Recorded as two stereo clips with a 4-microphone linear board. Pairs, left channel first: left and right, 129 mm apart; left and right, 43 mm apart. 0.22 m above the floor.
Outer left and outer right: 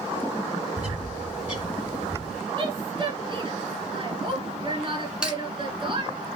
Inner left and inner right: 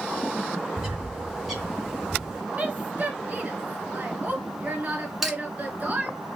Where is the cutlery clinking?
5° right (ahead or behind), 1.4 m.